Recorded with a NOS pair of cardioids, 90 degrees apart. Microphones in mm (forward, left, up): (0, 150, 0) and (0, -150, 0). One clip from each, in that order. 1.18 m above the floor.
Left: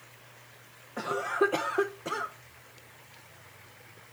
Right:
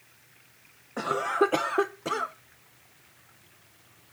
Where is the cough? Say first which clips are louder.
Right 3 dB; 20° right, 0.5 m.